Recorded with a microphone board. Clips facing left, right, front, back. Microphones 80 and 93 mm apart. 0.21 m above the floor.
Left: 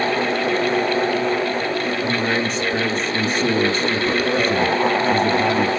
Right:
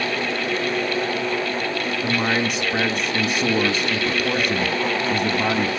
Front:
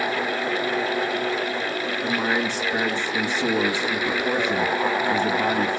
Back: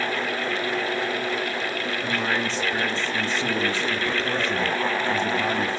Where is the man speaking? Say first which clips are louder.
Right 2 dB, front 3 dB; 50° right, 1.2 m.